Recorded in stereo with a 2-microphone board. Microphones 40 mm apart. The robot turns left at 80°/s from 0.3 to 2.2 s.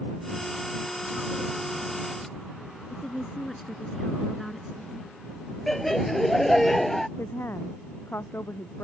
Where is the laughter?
5° left (ahead or behind).